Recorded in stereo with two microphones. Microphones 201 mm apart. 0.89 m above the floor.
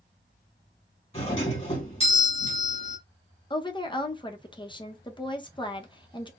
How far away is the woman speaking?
About 0.7 m.